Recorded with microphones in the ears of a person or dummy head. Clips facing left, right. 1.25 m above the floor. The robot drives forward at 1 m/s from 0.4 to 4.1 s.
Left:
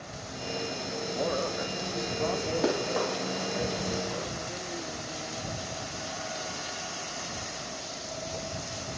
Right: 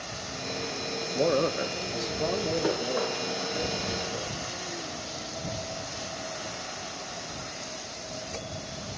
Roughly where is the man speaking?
Right.